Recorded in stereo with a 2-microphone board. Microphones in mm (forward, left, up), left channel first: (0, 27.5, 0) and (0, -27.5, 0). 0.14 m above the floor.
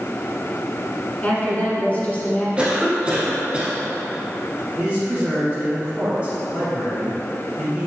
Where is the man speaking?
20° right (ahead or behind), 1.5 m.